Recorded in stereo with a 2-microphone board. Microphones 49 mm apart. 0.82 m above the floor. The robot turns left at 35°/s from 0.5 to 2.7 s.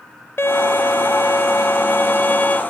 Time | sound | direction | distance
0.4 | a violin | 110° left | 1.0 m